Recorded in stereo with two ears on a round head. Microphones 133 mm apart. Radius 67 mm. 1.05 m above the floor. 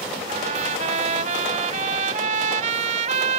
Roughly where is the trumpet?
Right.